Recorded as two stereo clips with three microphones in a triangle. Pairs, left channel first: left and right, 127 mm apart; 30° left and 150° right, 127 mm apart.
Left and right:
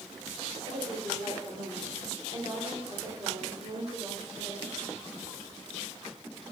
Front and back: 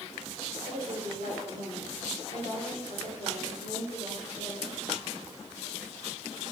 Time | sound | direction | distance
0.6 | a woman speaking | 130° right | 2.5 m